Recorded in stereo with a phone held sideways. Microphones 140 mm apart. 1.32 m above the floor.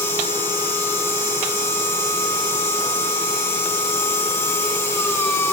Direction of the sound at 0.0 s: 20° left (ahead or behind).